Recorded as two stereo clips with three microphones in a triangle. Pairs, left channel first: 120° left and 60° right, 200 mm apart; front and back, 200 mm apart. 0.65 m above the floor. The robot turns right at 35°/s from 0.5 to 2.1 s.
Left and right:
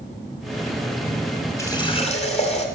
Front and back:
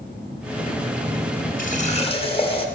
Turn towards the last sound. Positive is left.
turn(degrees=60)